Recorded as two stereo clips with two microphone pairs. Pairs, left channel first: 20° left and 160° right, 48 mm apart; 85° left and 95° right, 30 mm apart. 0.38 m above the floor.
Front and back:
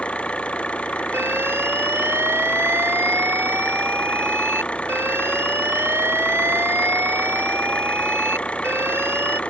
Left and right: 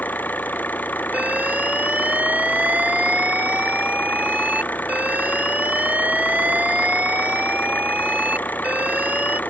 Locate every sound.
0.0 s an engine running: 85° left
1.1 s an alarm: 130° right